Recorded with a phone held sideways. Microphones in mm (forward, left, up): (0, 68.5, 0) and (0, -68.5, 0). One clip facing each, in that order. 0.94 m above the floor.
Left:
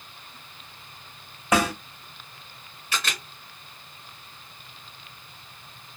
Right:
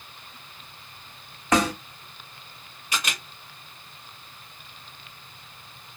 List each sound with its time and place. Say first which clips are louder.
1.5 s a snare drum: right 1 dB; 10° left (ahead or behind), 2.5 m
2.9 s a camera shutter: even; 15° right (ahead or behind), 1.5 m